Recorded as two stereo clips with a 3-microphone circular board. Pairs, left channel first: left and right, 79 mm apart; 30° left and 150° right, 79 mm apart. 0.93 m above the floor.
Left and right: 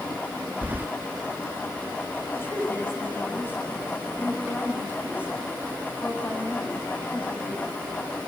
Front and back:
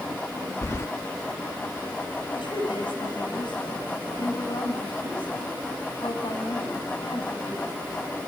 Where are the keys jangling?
25° right, 0.8 m.